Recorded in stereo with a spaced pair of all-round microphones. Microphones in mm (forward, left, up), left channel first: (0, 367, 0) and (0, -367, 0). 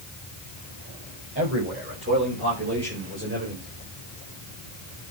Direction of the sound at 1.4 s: 15° right (ahead or behind).